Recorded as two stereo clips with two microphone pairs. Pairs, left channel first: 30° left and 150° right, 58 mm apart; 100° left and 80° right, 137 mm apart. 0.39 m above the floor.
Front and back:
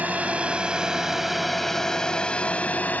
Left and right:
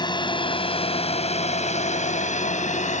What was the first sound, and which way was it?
A drone, 155° left.